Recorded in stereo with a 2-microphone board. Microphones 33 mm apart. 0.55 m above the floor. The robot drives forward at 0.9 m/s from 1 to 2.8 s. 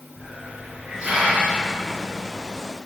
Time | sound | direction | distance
0.2 | a hiss | 35° right (ahead or behind) | 3 m